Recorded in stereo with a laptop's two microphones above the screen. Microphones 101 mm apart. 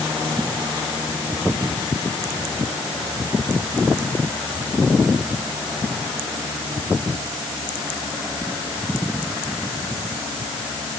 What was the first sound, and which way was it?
Only background noise.